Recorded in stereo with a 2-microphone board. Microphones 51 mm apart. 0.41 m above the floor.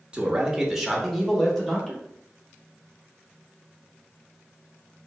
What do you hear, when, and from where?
0.1 s a man speaking: 20° right (ahead or behind), 0.8 m; by 2.0 s 15° left (ahead or behind), 1.4 m